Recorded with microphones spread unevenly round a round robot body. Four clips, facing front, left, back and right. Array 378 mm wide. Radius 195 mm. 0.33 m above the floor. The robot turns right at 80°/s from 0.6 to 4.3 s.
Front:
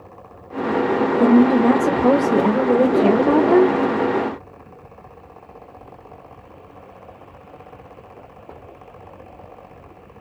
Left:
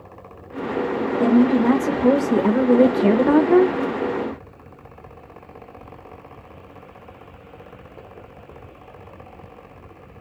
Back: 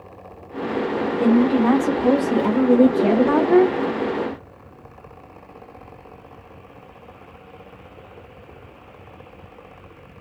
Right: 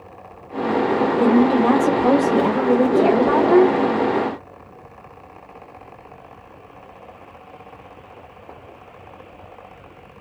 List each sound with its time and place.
1.2 s a woman speaking: 60° right, 1.3 m; by 3.8 s 145° left, 1.3 m